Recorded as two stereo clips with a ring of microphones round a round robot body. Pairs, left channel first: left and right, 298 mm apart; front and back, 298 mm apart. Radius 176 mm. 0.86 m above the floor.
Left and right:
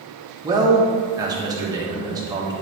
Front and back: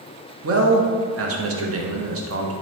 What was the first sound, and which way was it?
A man speaking, 165° right.